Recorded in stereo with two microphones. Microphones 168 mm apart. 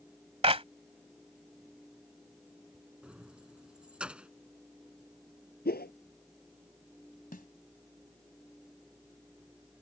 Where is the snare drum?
60° left (ahead or behind).